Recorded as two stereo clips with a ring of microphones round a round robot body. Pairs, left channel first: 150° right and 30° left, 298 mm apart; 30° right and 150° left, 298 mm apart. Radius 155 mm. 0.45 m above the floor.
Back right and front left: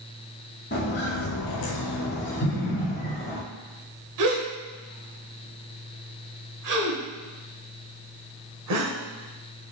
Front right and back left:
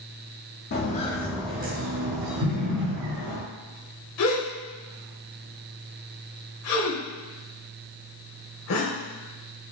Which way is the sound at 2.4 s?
155° right.